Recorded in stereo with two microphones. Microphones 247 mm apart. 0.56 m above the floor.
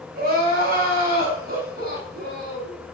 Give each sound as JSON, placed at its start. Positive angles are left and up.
{"t": 0.1, "sound": "crying", "side_deg": -40, "distance_m": 3.5}